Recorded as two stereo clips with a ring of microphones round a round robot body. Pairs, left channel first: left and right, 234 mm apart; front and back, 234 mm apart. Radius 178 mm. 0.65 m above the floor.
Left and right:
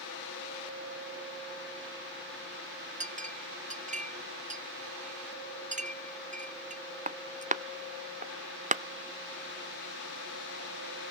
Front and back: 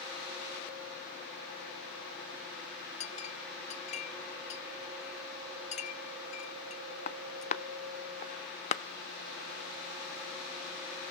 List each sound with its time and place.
3.0 s a clink: 45° right, 0.5 m